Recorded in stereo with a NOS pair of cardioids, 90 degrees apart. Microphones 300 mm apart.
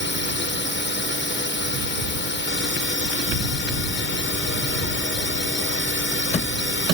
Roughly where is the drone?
Ahead left.